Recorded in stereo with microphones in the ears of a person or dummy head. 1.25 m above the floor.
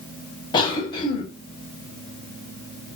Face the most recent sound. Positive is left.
turn(degrees=30)  # may be behind; listen again after turning